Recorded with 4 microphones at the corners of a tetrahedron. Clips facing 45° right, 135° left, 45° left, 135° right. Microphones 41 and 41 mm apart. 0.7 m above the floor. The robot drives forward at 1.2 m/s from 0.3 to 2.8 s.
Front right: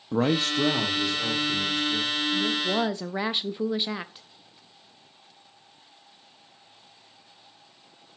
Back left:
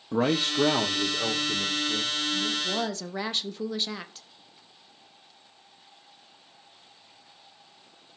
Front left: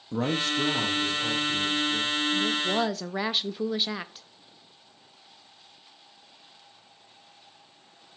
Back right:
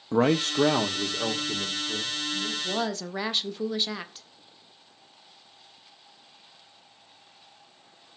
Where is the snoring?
No snoring in this recording.